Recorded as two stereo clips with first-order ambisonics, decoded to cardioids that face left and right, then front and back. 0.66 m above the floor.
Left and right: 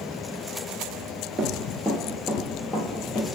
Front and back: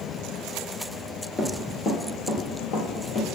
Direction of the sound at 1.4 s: 40° right.